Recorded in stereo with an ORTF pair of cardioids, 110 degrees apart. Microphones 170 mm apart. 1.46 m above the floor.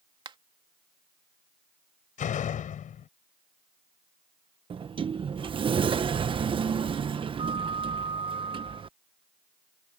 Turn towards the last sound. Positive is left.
turn(degrees=-30)